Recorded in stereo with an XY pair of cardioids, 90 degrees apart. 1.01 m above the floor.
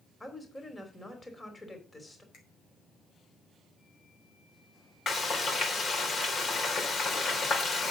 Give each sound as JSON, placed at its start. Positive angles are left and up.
{"t": 0.2, "sound": "a woman speaking", "azimuth_deg": 20, "distance_m": 3.0}
{"t": 2.3, "sound": "a finger snap", "azimuth_deg": 70, "distance_m": 4.5}
{"t": 5.1, "sound": "frying", "azimuth_deg": 50, "distance_m": 3.5}